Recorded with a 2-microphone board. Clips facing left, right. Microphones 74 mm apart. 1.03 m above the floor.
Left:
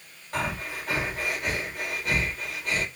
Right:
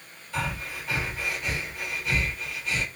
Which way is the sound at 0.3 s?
55° left (ahead or behind).